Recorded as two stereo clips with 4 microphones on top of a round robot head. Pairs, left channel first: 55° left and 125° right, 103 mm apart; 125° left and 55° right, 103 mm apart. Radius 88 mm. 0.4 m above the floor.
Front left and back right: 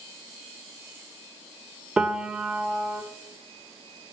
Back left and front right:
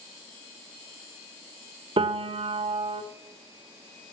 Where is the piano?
45° right, 1.0 m.